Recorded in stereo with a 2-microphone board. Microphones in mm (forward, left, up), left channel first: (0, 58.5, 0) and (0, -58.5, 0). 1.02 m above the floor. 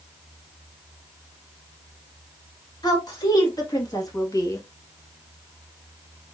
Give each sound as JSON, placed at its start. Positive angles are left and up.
{"t": 2.8, "sound": "a woman speaking", "side_deg": 35, "distance_m": 2.5}